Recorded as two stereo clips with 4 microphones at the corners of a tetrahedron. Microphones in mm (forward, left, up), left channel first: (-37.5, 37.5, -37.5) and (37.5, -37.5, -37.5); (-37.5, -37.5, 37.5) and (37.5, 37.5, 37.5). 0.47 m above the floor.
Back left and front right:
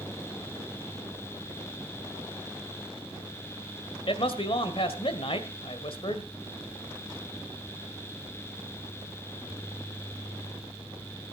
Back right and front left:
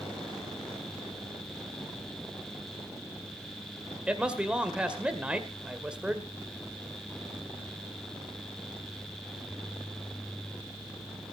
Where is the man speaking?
125° left, 1.8 m.